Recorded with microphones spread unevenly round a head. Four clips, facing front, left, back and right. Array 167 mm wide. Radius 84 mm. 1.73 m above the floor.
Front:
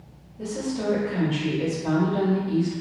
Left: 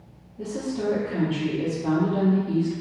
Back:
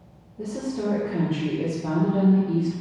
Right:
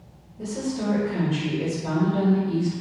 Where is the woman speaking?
150° left, 1.1 m.